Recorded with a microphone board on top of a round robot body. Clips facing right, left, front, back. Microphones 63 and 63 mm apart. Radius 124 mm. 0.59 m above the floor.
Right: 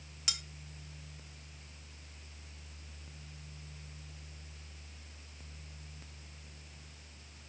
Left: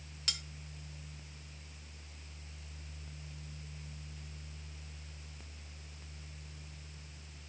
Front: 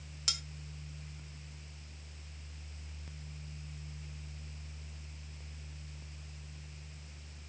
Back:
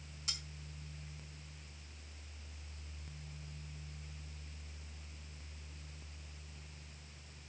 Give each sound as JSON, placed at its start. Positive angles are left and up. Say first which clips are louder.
{"t": 0.3, "sound": "cutlery clinking", "louder": "even, front 5 dB", "azimuth_deg": -10, "distance_m": 1.8}